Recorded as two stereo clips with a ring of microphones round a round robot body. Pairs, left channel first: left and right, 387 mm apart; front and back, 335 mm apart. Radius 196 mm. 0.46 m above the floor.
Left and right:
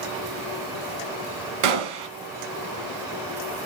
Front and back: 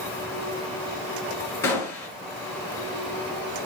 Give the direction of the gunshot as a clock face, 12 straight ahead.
3 o'clock.